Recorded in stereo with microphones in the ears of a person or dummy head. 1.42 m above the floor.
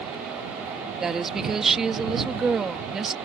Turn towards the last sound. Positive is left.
turn(degrees=0)  # may be behind; listen again after turning